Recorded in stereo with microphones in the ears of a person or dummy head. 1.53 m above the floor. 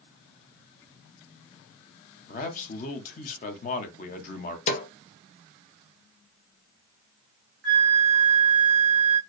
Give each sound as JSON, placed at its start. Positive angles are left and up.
{"t": 2.3, "sound": "a man speaking", "side_deg": 35, "distance_m": 1.0}
{"t": 4.7, "sound": "a snare drum", "side_deg": 30, "distance_m": 0.8}
{"t": 7.6, "sound": "a flute", "side_deg": -50, "distance_m": 1.4}